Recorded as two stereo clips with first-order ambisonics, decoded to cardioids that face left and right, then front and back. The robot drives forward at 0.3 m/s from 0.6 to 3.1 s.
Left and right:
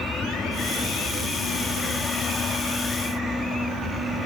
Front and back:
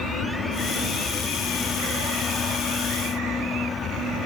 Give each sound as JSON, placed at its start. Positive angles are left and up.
{"t": 0.0, "sound": "an aircraft", "azimuth_deg": 35}